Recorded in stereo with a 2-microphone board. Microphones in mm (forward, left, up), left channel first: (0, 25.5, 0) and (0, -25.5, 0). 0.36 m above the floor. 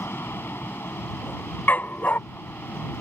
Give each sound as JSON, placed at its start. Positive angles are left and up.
{"t": 0.0, "sound": "an aircraft", "side_deg": 45}
{"t": 1.7, "sound": "a dog barking", "side_deg": 40}